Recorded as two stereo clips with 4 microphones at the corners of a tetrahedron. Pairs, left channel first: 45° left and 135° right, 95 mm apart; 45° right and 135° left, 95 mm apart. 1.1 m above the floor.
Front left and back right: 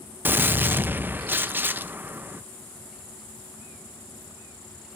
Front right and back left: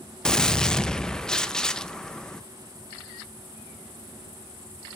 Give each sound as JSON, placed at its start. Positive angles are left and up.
{"t": 0.2, "sound": "a gunshot", "azimuth_deg": -115, "distance_m": 0.6}